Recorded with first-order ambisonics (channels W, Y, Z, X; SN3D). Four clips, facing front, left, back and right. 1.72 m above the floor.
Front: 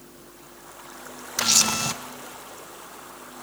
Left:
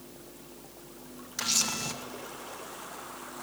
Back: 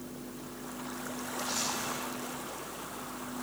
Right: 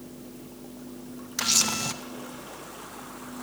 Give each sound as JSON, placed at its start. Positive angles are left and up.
{"t": 1.4, "sound": "a camera shutter", "azimuth_deg": -15, "distance_m": 1.4}